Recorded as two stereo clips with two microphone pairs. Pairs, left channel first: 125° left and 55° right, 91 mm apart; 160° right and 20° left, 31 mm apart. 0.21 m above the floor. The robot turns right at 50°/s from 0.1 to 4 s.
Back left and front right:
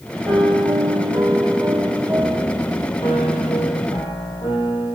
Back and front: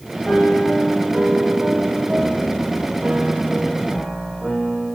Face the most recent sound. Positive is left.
turn(degrees=130)